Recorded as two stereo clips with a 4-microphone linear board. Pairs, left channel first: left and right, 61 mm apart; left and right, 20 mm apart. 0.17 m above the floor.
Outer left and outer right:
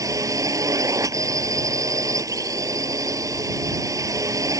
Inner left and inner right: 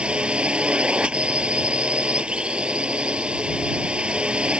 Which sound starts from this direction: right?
A drone, at 0.0 s.